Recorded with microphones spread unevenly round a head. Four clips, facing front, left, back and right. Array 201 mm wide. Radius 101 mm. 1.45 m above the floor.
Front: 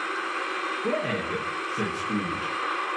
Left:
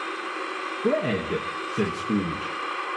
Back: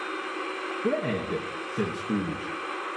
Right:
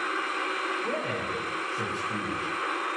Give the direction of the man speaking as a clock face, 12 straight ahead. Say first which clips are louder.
Left 6 dB, back 2 dB; 8 o'clock.